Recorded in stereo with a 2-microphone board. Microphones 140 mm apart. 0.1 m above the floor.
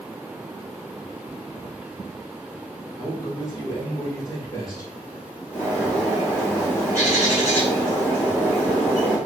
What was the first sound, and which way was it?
A man speaking, 25° left (ahead or behind).